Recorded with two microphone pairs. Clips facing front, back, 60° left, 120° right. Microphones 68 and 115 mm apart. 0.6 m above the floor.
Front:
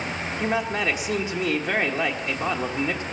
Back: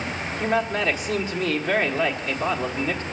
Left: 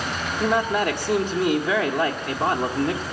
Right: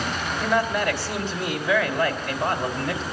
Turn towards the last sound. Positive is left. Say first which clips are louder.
# back 2 dB, left 2 dB
turn(degrees=70)